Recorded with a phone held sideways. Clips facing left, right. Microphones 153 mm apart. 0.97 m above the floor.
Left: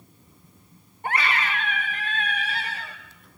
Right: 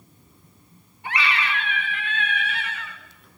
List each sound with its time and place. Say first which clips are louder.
1.0 s a scream: even; 45° left (ahead or behind), 2.5 m; by 3.0 s 35° left (ahead or behind), 3.5 m